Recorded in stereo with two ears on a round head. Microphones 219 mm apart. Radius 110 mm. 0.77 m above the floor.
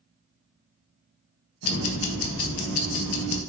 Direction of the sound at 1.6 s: 60° left (ahead or behind).